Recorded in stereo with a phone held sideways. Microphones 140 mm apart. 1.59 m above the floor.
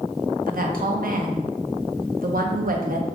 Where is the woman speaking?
70° right (ahead or behind), 0.7 m.